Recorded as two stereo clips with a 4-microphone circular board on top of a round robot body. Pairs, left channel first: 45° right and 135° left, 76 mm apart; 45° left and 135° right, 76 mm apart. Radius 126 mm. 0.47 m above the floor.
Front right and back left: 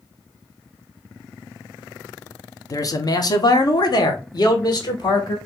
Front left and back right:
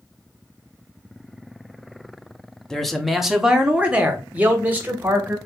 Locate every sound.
2.7 s a man speaking: 35° right, 0.9 m; by 5.4 s 70° right, 2 m